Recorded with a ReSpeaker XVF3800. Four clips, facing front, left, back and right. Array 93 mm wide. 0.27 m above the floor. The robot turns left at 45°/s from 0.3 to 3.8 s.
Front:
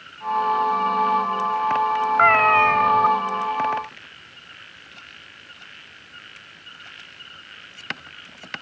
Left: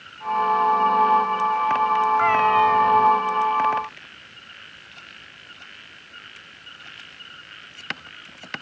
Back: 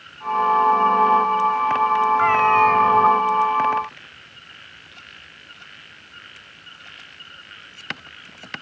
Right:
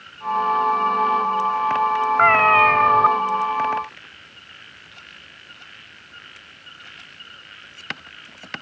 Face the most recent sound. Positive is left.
turn(degrees=-115)